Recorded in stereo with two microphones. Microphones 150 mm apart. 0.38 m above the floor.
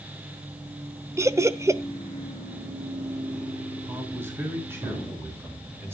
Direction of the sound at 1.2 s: 20° right (ahead or behind).